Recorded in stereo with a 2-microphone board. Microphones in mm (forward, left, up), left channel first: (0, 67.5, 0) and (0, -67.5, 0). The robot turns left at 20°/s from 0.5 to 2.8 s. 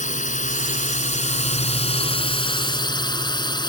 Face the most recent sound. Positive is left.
turn(degrees=35)